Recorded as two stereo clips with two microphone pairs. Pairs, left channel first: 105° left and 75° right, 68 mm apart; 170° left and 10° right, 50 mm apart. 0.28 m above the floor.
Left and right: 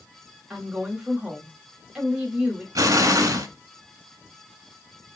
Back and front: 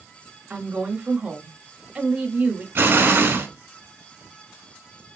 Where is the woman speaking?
10° right, 0.9 m.